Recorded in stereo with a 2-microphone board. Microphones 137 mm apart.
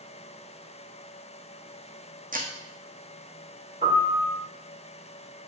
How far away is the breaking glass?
About 1.8 m.